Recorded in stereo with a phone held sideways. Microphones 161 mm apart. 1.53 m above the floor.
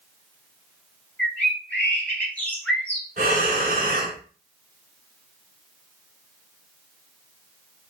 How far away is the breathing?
About 0.9 m.